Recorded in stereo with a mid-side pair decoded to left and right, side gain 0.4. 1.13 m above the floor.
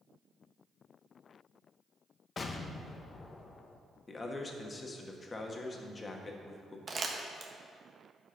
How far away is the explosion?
About 0.9 m.